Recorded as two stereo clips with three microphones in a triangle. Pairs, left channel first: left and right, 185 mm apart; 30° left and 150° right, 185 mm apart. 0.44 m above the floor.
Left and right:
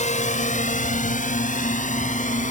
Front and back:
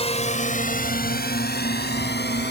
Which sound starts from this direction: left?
A drone, at 0.0 s.